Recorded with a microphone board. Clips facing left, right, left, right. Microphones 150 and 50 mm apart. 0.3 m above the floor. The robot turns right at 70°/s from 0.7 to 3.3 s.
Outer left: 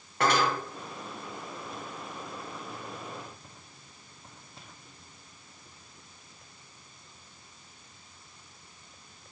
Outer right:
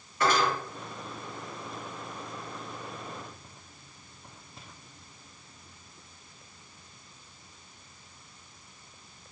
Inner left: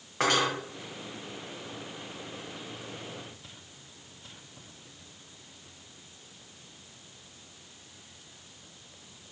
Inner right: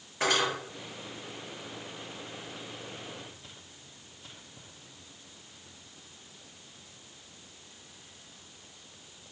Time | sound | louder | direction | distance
0.2 | cutlery clinking | even, inner left 2 dB | 65° left (ahead or behind) | 1.6 m